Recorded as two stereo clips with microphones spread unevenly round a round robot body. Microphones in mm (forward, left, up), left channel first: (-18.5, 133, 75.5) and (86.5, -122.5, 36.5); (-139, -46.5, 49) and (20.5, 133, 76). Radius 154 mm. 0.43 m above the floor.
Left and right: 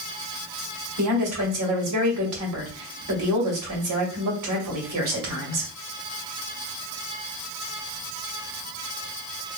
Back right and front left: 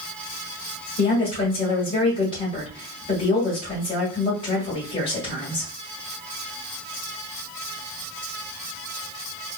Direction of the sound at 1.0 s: 65° right.